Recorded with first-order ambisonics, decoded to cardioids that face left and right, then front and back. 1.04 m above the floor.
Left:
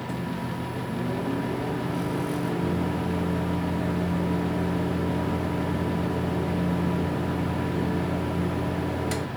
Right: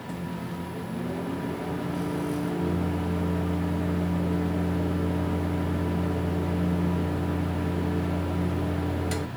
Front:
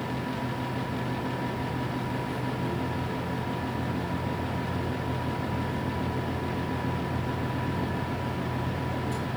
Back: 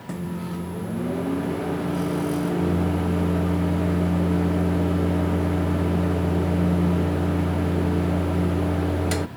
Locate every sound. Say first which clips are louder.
0.1 s a microwave: left 1 dB, front 1 dB; 170° left, 0.5 m